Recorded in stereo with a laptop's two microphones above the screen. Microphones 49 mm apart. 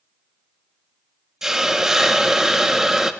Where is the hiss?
10° right (ahead or behind), 0.6 m.